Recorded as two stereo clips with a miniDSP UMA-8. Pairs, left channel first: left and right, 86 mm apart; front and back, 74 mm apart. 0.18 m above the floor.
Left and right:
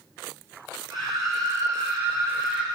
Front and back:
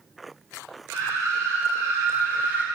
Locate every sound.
0.9 s a scream: 130° right, 2.5 m; by 2.6 s 150° right, 1.2 m